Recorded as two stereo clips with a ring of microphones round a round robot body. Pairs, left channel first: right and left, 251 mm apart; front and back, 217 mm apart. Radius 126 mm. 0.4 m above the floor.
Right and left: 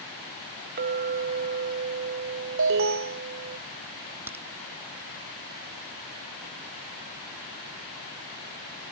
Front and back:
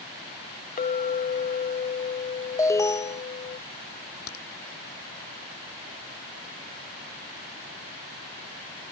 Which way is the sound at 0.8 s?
45° left.